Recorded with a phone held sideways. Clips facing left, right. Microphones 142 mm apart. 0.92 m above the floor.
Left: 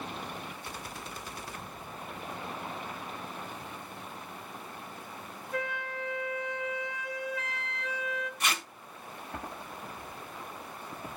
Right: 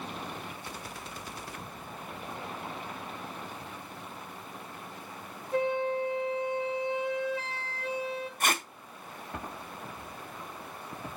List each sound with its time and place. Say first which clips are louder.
5.5 s a flute: right 8 dB; 30° right (ahead or behind), 2 m
8.4 s tape being pulled: right 6 dB; 50° right (ahead or behind), 1.0 m